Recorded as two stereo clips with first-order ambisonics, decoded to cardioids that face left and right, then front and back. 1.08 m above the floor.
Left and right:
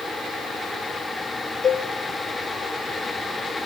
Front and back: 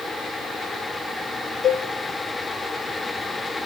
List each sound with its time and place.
1.6 s a cowbell: 40° left, 0.6 m